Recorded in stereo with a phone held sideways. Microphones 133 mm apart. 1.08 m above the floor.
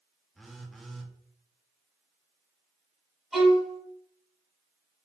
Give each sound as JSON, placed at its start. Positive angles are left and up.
{"t": 0.3, "sound": "a phone buzzing", "side_deg": 0, "distance_m": 0.6}
{"t": 3.3, "sound": "a violin", "side_deg": -5, "distance_m": 1.5}